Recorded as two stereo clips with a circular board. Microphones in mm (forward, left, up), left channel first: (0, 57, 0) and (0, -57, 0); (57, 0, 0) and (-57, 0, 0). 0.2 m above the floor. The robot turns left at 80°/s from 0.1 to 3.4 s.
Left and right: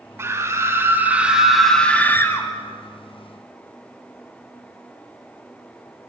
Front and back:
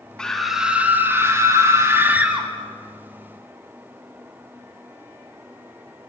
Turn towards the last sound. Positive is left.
turn(degrees=30)